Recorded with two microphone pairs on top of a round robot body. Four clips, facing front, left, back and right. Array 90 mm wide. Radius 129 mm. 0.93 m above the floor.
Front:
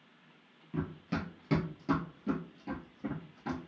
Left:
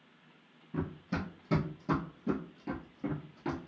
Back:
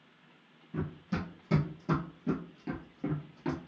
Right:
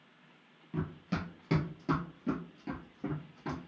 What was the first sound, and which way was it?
Running footsteps, 70° right.